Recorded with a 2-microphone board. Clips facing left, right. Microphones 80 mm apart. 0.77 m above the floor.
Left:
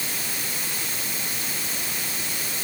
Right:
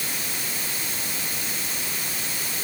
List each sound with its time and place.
Only background noise.